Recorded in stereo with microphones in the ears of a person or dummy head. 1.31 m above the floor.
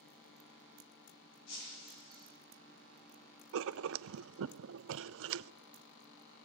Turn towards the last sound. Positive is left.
turn(degrees=-75)  # may be behind; listen again after turning